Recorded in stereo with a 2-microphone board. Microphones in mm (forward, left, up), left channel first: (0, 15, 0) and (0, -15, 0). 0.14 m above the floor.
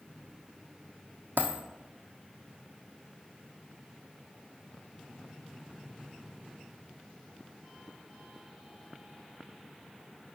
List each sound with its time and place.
1.4 s a dropped coin: 85° right, 1.0 m